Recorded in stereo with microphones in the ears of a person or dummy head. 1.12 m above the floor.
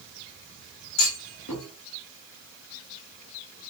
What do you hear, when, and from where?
1.0 s a clunk: 80° left, 2 m